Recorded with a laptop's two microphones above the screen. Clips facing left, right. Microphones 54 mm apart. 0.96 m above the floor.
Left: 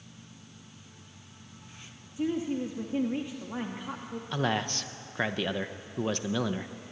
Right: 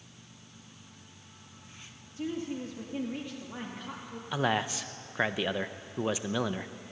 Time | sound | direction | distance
2.2 | a woman speaking | 15° left (ahead or behind) | 1.7 m
4.3 | a man speaking | 10° right (ahead or behind) | 0.8 m